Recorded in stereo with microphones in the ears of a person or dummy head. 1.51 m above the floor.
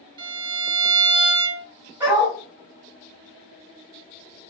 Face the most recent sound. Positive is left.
turn(degrees=-20)  # may be behind; listen again after turning